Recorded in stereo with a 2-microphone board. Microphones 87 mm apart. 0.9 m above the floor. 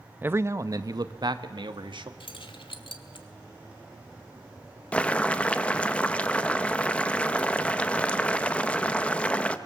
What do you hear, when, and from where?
0.2 s a man speaking: 20° right (ahead or behind), 0.7 m; by 2.1 s 65° right (ahead or behind), 1.6 m
2.2 s keys jangling: 80° left, 1.7 m
4.9 s boiling: 15° left (ahead or behind), 0.8 m